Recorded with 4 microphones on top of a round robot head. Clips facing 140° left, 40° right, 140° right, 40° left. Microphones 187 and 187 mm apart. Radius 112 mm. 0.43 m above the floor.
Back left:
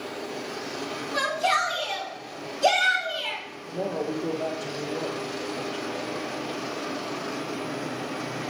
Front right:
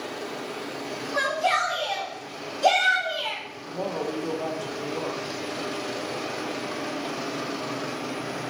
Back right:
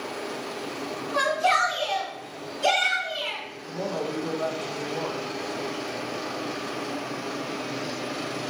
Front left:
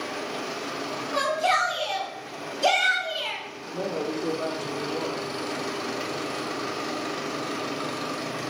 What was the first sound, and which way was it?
A shout, 95° left.